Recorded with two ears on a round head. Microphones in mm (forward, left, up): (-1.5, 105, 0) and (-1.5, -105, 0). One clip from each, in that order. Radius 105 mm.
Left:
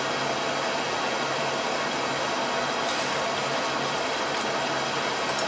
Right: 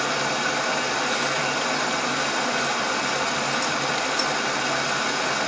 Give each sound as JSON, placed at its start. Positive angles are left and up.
{"t": 0.0, "sound": "running water", "side_deg": -45, "distance_m": 1.2}